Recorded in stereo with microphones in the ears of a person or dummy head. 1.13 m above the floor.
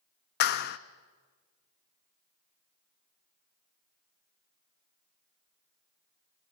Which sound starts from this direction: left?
A clap, at 0.4 s.